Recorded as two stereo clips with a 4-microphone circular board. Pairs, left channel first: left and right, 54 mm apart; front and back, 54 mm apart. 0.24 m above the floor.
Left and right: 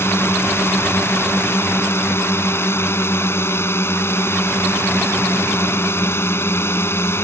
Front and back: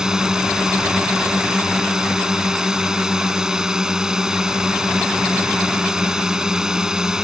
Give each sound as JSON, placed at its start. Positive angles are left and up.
{"t": 0.0, "sound": "a drone", "azimuth_deg": 105}